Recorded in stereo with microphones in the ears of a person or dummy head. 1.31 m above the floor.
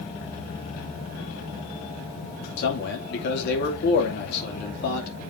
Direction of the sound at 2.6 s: 70° left (ahead or behind).